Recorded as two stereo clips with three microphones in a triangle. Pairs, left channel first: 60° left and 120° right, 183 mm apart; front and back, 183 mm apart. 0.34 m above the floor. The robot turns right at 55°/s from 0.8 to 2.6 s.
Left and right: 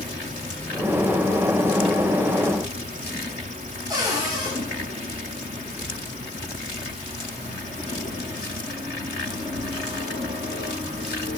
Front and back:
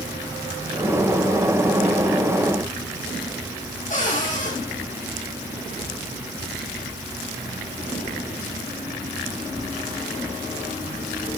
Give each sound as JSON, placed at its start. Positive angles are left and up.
{"t": 3.9, "sound": "a cupboard door", "azimuth_deg": -50, "distance_m": 7.5}